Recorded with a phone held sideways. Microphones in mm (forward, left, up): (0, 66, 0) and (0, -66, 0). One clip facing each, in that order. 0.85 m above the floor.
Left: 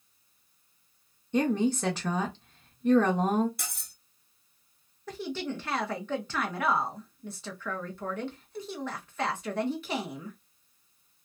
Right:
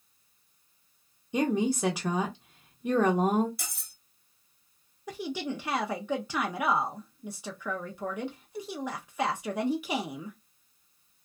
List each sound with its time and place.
1.3 s a woman speaking: 10° right (ahead or behind), 0.6 m
3.6 s cutlery clinking: 55° left (ahead or behind), 1.5 m
5.1 s a woman speaking: 10° right (ahead or behind), 0.5 m